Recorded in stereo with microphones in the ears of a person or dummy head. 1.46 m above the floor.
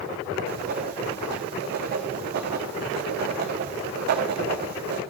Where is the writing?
55° right (ahead or behind), 0.8 m.